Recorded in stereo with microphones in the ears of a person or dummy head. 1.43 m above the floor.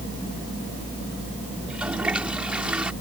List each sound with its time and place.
1.6 s a toilet flushing: 5° right (ahead or behind)